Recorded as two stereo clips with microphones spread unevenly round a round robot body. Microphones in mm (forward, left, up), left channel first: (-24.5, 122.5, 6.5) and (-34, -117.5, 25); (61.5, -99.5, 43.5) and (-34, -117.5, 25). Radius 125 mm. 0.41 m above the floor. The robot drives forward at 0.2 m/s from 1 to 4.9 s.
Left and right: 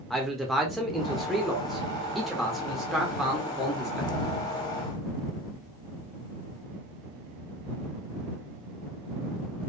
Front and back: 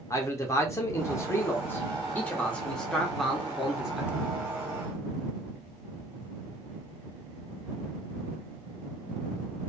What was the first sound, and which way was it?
A man speaking, 15° left.